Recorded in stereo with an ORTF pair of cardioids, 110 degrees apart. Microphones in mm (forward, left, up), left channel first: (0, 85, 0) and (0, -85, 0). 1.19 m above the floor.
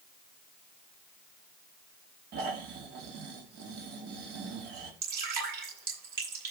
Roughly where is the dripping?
Ahead right.